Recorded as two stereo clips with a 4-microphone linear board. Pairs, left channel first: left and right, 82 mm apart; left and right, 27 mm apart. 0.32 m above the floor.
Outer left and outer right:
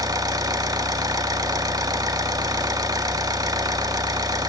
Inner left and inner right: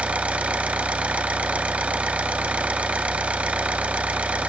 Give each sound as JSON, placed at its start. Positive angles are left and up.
{"t": 0.0, "sound": "an engine running", "side_deg": -50, "distance_m": 1.0}